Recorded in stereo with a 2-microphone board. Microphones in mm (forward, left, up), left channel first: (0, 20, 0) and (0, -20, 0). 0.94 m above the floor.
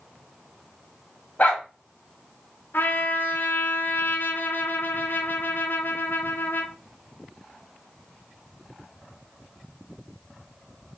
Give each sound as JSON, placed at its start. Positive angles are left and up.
{"t": 1.4, "sound": "a dog barking", "side_deg": 45, "distance_m": 1.6}
{"t": 2.7, "sound": "a trumpet", "side_deg": 65, "distance_m": 0.7}